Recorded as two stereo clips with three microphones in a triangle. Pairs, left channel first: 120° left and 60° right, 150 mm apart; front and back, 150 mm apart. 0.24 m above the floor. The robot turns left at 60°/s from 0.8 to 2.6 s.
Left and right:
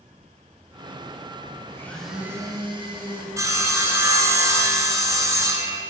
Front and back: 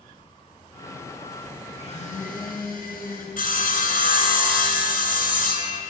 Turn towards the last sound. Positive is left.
turn(degrees=10)